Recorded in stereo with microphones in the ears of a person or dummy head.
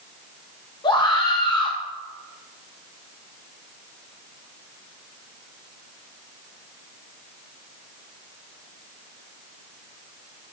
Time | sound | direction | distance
0.8 | a scream | 30° left (ahead or behind) | 1.6 m